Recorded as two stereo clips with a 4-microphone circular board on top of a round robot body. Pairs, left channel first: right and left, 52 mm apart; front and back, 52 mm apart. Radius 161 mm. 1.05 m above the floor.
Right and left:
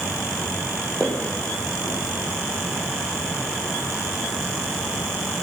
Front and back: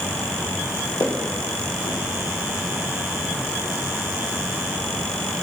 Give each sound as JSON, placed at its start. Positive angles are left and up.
{"t": 1.0, "sound": "footsteps", "azimuth_deg": -15, "distance_m": 2.5}